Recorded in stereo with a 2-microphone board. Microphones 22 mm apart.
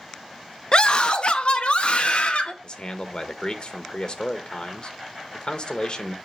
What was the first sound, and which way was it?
A scream, 45° left (ahead or behind).